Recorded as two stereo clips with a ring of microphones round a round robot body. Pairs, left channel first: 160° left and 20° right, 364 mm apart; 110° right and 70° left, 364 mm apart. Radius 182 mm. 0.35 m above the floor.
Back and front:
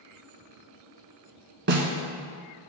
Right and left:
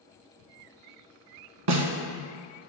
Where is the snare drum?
40° left, 1.5 m.